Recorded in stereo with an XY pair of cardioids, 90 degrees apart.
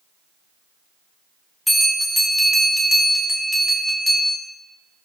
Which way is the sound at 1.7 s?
10° left.